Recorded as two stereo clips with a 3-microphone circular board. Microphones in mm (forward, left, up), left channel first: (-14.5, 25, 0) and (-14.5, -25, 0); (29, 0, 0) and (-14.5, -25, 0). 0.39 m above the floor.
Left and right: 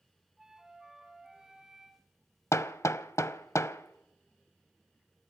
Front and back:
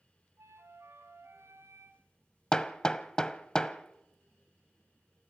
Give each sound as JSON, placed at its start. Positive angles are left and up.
{"t": 0.4, "sound": "a flute", "azimuth_deg": -170, "distance_m": 1.9}
{"t": 2.5, "sound": "hammering", "azimuth_deg": 100, "distance_m": 0.7}